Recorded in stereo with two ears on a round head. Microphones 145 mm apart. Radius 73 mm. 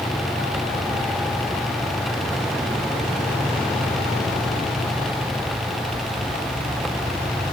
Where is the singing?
I don't hear singing.